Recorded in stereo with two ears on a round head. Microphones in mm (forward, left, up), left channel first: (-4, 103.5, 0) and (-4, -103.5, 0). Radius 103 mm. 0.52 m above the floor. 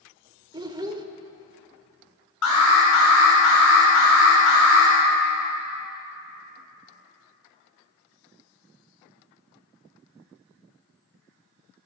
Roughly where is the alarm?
Left.